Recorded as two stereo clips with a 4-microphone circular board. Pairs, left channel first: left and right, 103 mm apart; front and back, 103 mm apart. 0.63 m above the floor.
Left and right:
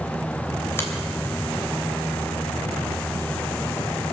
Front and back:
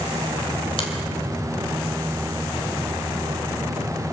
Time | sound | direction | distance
0.8 | a finger snap | 25° left | 2.5 m